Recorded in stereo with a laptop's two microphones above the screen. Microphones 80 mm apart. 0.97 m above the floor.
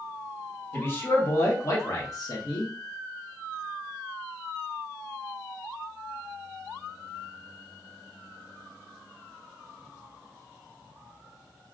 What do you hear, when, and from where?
0.7 s a man speaking: 30° left (ahead or behind), 1.4 m; by 2.7 s 55° left (ahead or behind), 1.0 m